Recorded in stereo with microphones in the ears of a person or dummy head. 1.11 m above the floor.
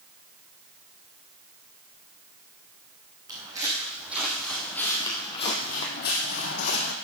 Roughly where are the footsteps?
Centre.